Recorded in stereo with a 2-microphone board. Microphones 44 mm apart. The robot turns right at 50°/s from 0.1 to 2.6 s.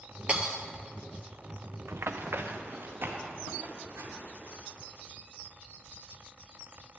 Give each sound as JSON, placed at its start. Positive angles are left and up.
{"t": 0.3, "sound": "breaking glass", "side_deg": -30, "distance_m": 0.6}
{"t": 1.9, "sound": "running footsteps", "side_deg": -80, "distance_m": 0.5}